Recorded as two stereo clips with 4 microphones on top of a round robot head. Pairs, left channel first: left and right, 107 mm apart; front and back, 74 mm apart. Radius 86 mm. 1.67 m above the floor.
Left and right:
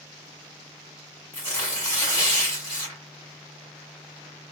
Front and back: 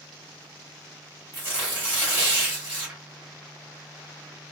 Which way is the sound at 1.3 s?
125° left.